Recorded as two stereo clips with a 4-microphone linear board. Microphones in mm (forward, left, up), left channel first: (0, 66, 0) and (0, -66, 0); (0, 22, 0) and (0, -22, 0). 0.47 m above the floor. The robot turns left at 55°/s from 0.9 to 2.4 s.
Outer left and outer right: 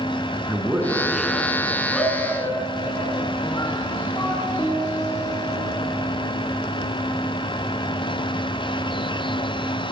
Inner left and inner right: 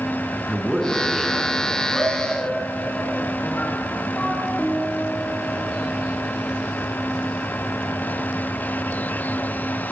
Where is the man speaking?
165° right, 5.5 m; by 1.8 s 145° left, 5.5 m.